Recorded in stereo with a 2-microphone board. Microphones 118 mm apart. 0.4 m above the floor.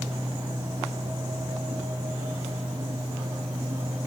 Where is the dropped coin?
No dropped coin in this recording.